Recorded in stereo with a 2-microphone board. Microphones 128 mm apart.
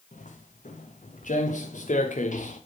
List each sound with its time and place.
0.1 s footsteps: 80° left, 4 m